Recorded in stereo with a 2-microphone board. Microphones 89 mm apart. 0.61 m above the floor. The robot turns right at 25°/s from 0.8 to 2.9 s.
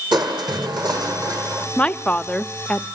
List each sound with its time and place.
0.1 s crushing: 60° right (ahead or behind), 5.5 m; by 1.7 s 35° right (ahead or behind), 5.5 m
1.8 s a woman speaking: 15° left (ahead or behind), 0.6 m; by 2.9 s 10° left (ahead or behind), 0.6 m